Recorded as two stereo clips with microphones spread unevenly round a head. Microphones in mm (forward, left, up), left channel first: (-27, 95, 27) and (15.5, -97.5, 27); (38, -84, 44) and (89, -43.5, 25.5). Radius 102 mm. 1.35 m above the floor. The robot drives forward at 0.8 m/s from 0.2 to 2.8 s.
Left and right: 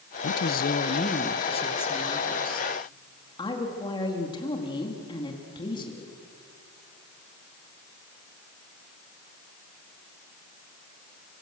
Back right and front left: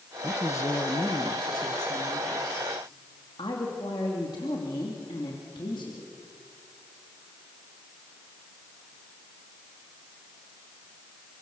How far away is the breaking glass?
No breaking glass in this recording.